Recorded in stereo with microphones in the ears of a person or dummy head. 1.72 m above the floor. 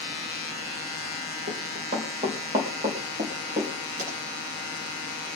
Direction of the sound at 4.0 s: 45° right (ahead or behind).